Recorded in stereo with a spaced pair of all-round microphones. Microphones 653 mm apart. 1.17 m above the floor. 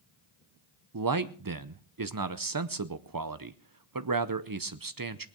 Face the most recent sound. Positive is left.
turn(degrees=-35)  # may be behind; listen again after turning